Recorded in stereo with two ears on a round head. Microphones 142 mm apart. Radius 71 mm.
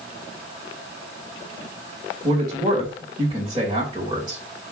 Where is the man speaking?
25° right (ahead or behind), 3.5 m.